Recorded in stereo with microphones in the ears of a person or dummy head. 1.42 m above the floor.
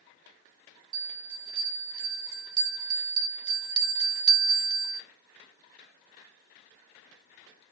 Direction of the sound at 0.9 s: 25° right (ahead or behind).